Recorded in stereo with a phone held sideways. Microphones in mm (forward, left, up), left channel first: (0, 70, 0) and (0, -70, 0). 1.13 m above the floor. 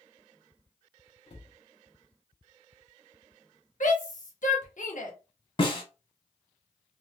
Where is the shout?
65° left (ahead or behind), 1.1 m.